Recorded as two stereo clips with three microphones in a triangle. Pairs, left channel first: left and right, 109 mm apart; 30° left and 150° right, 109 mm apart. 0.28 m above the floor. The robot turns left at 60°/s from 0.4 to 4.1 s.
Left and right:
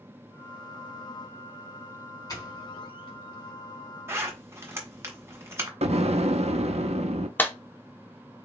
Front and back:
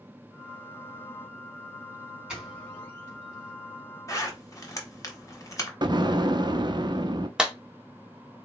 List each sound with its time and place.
2.3 s a doorbell: 130° left, 3 m; by 3.5 s 55° left, 3 m
4.1 s a zipper: 25° right, 1.3 m
5.8 s an explosion: 100° right, 0.5 m
7.4 s a clap: 135° left, 0.8 m